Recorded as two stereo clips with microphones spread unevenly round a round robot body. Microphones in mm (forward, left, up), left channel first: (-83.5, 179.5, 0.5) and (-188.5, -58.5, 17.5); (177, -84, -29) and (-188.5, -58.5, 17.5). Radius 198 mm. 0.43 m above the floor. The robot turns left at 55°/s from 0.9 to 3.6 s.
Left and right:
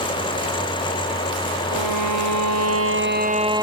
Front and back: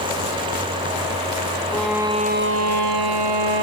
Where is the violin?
85° right; by 3.6 s 170° left.